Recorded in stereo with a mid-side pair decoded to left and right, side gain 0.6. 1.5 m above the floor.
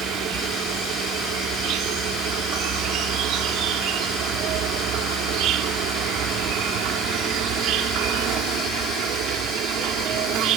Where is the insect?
65° right.